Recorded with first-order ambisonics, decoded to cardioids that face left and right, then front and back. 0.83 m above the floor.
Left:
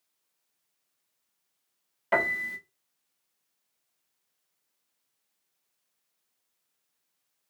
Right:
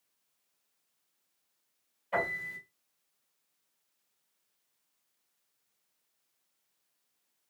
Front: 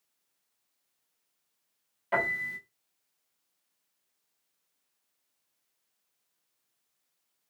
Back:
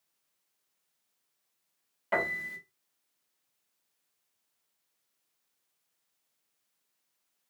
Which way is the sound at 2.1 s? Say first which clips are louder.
Left 6 dB, front 2 dB; 100° left.